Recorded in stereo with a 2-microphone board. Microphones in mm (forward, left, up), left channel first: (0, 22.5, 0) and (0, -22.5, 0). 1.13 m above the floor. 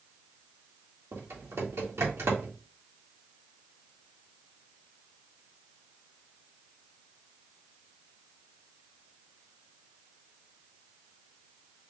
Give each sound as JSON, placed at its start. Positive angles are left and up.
{"t": 1.1, "sound": "typing on a keyboard", "side_deg": -80, "distance_m": 1.7}